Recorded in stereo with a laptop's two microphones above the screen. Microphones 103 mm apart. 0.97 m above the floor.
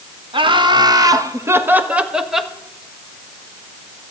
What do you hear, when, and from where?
0.3 s laughter: 55° right (ahead or behind), 1.3 m; by 2.5 s centre (ahead or behind), 1.4 m